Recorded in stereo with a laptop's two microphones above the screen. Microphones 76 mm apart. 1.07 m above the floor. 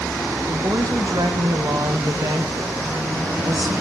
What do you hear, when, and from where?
0.5 s a woman speaking: 60° right (ahead or behind), 0.6 m